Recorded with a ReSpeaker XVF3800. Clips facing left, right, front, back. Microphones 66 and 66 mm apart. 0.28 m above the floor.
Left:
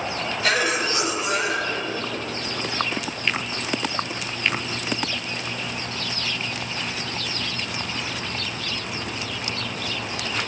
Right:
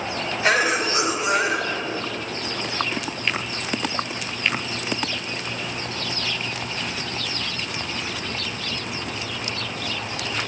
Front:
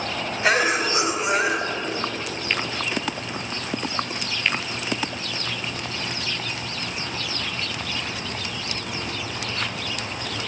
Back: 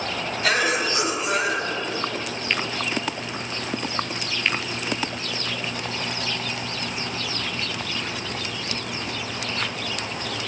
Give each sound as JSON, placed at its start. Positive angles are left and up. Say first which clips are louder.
{"t": 0.4, "sound": "a cough", "louder": "right 3 dB, front 2 dB", "azimuth_deg": -45, "distance_m": 1.0}